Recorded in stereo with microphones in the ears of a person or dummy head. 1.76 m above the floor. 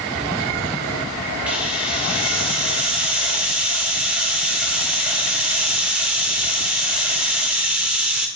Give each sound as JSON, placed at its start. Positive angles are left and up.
{"t": 1.5, "sound": "a hiss", "side_deg": -5, "distance_m": 1.3}